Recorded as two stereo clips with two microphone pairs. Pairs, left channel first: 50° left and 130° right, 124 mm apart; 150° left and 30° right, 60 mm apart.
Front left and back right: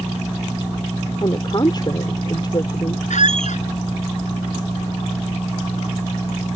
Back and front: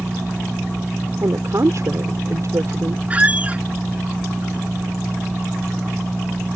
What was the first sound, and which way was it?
A woman speaking, 5° right.